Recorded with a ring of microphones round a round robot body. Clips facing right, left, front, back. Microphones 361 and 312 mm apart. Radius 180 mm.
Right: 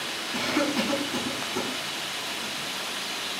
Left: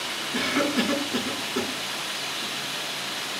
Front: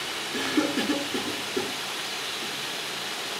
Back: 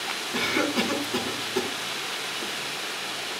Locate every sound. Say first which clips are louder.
0.3 s a cough: left 2 dB, front 1 dB; 165° right, 4.5 m